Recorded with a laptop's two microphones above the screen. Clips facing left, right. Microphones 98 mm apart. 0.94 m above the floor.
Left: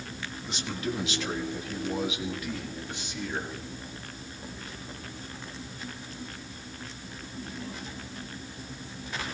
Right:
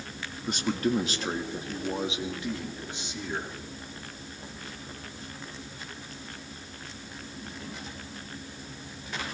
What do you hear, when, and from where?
0.5 s a man speaking: 50° right (ahead or behind), 1.4 m; by 3.5 s 20° right (ahead or behind), 2.5 m